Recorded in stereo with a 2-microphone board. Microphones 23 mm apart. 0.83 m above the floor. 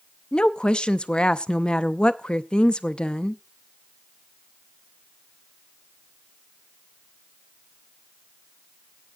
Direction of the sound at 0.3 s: 45° left (ahead or behind).